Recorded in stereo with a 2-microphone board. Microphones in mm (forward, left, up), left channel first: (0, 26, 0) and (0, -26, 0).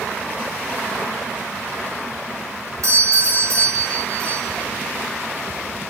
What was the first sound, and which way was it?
A doorbell, 70° right (ahead or behind).